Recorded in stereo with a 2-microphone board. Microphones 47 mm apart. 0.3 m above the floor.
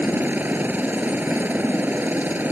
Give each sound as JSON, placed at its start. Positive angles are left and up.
{"t": 0.0, "sound": "a helicopter", "side_deg": -40}